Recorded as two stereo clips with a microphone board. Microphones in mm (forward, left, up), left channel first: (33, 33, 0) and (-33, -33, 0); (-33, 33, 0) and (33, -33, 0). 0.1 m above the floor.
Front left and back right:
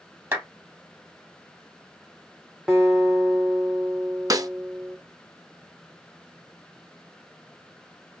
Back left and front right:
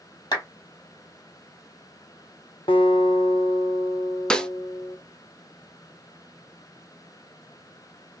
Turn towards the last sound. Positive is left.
turn(degrees=-150)